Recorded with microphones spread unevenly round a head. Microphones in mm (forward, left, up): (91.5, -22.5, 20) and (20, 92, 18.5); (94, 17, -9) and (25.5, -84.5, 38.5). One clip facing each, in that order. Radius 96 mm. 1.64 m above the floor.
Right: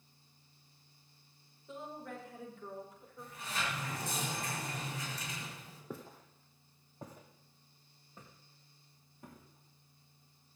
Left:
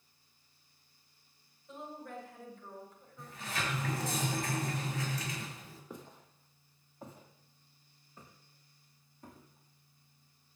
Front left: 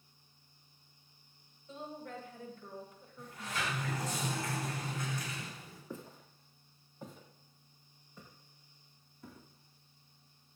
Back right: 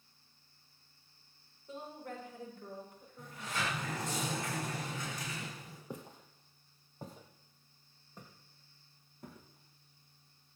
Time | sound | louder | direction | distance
1.7 | a woman speaking | even, even | 80° right | 7 m
3.2 | a sliding door | left 1 dB, back right 1 dB | 160° left | 5 m
5.9 | footsteps | right 5 dB, even | 95° right | 2 m